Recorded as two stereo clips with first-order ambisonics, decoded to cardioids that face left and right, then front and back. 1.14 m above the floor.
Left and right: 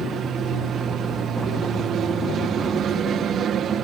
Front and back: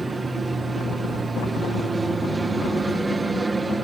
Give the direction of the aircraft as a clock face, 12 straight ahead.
3 o'clock.